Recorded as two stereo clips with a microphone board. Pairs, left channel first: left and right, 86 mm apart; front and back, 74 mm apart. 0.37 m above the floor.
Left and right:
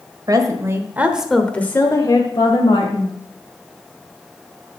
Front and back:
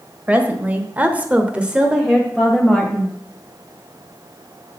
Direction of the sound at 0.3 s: 115° right.